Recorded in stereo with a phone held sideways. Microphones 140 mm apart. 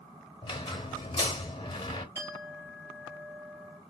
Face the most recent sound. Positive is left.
turn(degrees=-20)  # may be behind; listen again after turning